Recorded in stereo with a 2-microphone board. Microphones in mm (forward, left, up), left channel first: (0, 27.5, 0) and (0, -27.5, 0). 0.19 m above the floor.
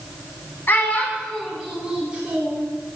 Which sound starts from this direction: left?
A child speaking, at 0.7 s.